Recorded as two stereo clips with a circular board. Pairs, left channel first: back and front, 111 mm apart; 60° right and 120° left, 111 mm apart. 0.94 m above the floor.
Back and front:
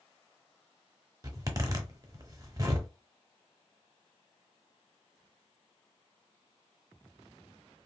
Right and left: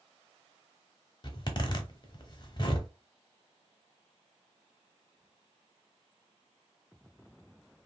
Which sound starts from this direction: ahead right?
A zipper, at 1.2 s.